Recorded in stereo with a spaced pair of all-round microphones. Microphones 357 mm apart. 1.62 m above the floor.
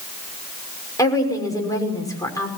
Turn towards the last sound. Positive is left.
turn(degrees=10)  # may be behind; listen again after turning